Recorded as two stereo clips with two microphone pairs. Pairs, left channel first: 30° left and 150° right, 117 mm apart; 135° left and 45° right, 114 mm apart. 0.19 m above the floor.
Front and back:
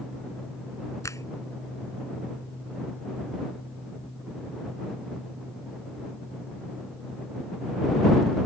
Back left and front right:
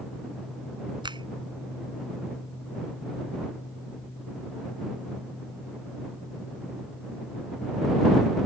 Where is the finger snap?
25° right.